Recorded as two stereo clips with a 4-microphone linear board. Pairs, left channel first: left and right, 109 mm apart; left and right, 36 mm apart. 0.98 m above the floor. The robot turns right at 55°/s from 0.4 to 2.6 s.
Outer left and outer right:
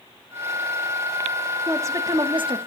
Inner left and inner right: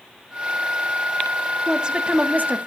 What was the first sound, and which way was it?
A woman speaking, 160° right.